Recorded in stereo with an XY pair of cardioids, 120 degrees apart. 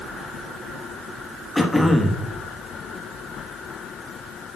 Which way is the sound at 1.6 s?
10° left.